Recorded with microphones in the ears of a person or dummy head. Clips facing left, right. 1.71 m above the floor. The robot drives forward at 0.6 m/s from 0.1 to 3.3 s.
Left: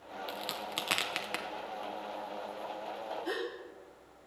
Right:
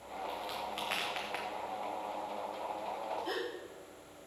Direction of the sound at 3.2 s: 10° left (ahead or behind).